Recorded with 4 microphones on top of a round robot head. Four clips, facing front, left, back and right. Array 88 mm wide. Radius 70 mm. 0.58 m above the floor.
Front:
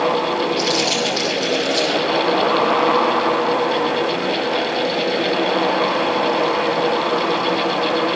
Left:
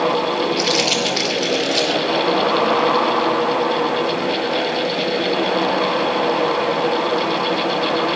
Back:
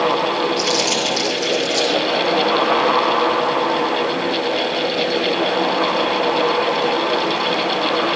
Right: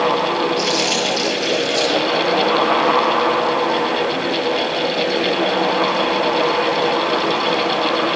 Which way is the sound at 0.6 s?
115° left.